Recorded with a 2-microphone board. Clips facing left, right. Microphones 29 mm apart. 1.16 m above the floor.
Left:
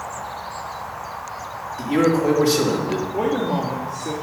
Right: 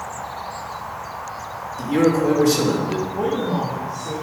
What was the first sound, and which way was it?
A man speaking, 25° left (ahead or behind).